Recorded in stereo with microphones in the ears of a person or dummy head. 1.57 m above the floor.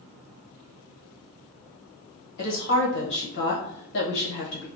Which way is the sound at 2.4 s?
60° left (ahead or behind).